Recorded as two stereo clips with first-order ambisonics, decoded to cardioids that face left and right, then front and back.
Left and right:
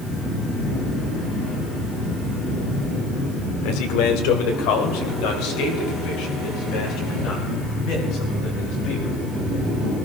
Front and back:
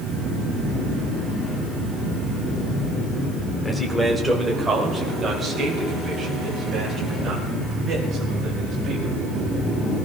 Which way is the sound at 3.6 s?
85° left.